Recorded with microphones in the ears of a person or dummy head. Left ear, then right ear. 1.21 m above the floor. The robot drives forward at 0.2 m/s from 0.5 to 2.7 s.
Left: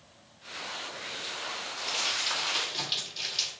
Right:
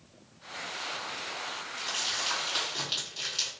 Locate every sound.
1.8 s crumpling: 5° right (ahead or behind), 1.8 m